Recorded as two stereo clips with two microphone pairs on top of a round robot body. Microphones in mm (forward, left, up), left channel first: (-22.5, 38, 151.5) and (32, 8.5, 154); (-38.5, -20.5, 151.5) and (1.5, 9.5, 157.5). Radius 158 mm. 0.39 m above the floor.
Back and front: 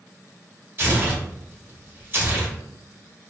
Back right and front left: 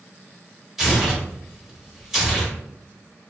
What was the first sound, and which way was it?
Tearing paper, 50° right.